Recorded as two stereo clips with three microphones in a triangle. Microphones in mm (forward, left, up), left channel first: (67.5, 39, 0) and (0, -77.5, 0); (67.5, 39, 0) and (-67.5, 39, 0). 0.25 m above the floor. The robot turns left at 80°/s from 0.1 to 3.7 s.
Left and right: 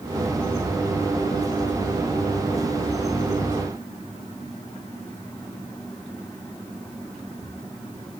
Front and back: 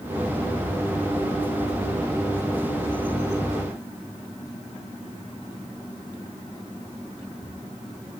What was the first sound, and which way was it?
Only background noise.